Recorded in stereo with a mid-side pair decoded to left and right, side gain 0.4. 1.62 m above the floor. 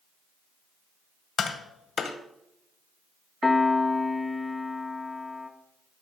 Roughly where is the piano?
Ahead.